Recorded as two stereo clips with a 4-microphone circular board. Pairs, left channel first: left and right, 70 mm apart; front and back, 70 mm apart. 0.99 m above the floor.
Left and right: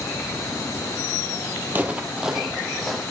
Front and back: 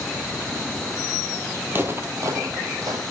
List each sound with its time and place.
1.7 s footsteps: 135° right, 1.2 m; by 3.0 s 175° left, 1.8 m